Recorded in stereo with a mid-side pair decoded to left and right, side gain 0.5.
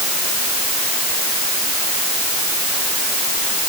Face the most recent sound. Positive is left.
No sound to turn to.